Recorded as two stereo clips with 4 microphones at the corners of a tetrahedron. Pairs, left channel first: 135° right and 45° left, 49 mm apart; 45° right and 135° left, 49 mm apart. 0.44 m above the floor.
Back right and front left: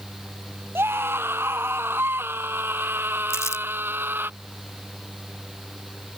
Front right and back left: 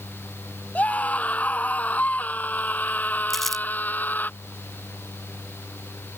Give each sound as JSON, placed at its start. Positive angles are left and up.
{"t": 0.8, "sound": "a scream", "azimuth_deg": 10}
{"t": 3.3, "sound": "crumpling", "azimuth_deg": -130}